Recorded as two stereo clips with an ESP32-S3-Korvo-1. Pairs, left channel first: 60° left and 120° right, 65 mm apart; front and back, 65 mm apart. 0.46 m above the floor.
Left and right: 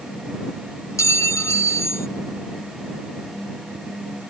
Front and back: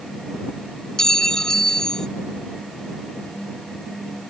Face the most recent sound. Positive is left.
turn(degrees=75)